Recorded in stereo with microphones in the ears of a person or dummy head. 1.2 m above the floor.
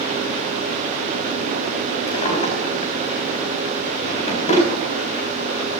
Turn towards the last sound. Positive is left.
turn(degrees=35)  # may be behind; listen again after turning